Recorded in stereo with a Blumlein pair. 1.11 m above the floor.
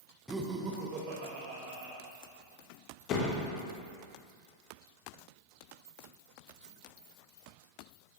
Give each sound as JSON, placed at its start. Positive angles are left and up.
{"t": 0.3, "sound": "laughter", "azimuth_deg": -5, "distance_m": 0.6}
{"t": 3.1, "sound": "a door slam", "azimuth_deg": 35, "distance_m": 1.0}